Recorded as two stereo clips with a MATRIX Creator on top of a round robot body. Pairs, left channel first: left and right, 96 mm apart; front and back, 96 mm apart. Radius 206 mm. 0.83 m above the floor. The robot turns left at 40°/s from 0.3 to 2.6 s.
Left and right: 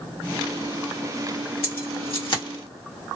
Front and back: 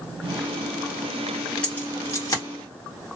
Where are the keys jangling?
80° left, 1.8 m; by 2.4 s 45° left, 1.8 m.